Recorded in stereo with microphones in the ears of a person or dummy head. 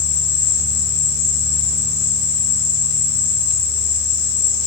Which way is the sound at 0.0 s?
55° left (ahead or behind).